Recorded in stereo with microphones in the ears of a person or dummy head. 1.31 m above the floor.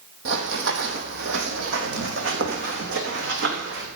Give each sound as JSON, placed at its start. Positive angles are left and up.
{"t": 0.2, "sound": "running footsteps", "side_deg": -60, "distance_m": 3.0}